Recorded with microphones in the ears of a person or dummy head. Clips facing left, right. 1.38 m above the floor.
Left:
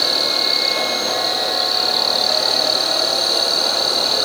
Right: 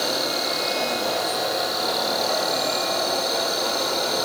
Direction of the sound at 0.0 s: 40° left (ahead or behind).